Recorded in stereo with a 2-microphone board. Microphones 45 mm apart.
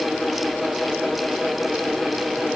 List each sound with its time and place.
Only background noise.